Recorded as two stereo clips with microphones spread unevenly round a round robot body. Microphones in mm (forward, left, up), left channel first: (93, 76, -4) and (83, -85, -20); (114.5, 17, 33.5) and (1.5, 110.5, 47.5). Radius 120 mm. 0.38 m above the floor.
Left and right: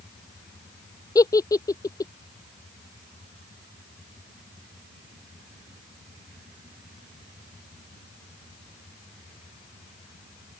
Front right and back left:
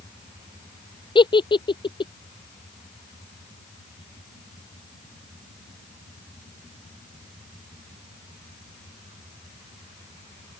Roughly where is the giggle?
Ahead.